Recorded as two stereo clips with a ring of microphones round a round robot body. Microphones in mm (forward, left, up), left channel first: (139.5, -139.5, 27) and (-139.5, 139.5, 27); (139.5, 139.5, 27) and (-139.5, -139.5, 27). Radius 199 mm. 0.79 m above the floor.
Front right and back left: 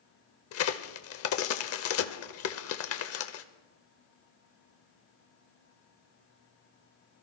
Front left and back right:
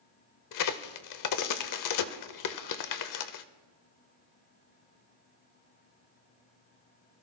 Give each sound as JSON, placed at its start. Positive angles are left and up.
{"t": 0.5, "sound": "a crack", "azimuth_deg": 5, "distance_m": 0.7}